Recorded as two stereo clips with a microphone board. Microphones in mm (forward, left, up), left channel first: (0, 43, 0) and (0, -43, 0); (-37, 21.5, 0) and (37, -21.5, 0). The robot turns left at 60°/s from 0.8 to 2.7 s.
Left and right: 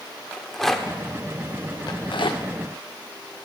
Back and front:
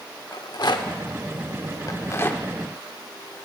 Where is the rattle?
175° left, 0.6 m; by 2.4 s 80° left, 0.6 m.